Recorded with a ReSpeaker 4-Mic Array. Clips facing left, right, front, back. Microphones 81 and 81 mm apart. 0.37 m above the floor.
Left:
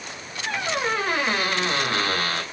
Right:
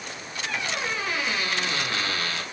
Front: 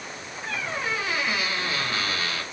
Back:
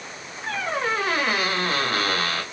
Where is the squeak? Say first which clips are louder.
Left 5 dB, back 5 dB; 135° left, 2 m.